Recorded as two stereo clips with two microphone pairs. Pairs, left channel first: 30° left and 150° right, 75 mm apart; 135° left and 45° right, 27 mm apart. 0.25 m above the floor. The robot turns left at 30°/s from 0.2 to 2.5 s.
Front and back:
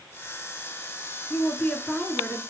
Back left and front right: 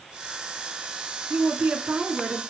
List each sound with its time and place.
1.3 s a woman speaking: 35° right, 2.5 m; by 2.4 s 70° right, 2.5 m